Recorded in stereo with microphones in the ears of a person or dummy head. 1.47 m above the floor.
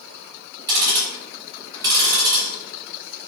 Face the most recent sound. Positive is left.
turn(degrees=-20)  # may be behind; listen again after turning